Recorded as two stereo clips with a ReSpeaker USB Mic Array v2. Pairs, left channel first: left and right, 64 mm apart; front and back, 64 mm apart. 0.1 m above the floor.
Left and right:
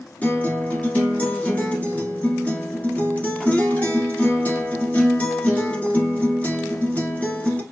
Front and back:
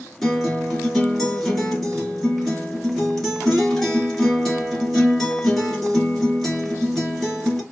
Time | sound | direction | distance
0.2 | a guitar | 80° left | 1.1 m